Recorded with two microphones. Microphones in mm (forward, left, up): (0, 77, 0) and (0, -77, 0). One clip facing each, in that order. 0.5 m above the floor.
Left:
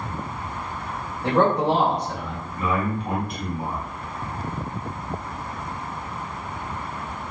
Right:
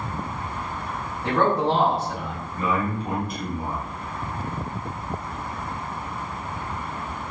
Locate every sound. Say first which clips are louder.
1.2 s a man speaking: left 2 dB; 35° left (ahead or behind), 0.8 m; by 2.5 s 20° right (ahead or behind), 1.0 m
2.6 s a man speaking: even; 40° right (ahead or behind), 1.4 m